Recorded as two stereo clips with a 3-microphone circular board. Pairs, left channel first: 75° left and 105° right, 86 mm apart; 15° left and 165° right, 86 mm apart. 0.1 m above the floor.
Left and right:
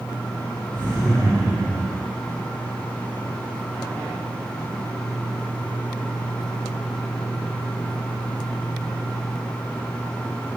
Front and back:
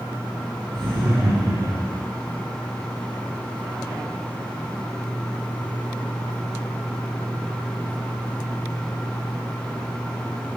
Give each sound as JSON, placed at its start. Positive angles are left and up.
{"t": 0.7, "sound": "laughter", "azimuth_deg": -155, "distance_m": 4.0}